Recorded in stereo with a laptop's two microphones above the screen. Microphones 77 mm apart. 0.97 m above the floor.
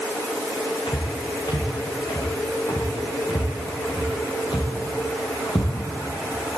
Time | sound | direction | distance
0.9 | footsteps | 70° left (ahead or behind) | 5.5 m